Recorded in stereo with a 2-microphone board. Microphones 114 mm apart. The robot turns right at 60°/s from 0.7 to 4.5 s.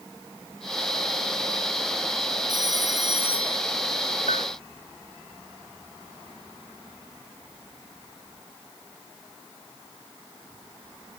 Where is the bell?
90° left; by 4.5 s 75° left (ahead or behind).